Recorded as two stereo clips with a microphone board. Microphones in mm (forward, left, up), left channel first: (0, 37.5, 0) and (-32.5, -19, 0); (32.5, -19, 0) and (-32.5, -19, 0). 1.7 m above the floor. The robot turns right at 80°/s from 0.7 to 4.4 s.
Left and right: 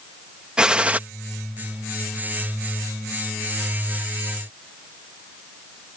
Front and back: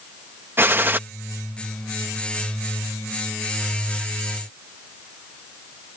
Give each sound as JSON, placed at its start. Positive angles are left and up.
{"t": 0.6, "sound": "a gunshot", "azimuth_deg": 175}